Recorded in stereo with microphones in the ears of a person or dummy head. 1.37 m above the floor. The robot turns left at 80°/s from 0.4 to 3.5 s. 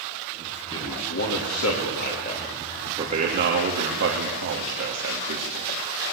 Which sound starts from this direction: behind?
A man speaking, at 0.7 s.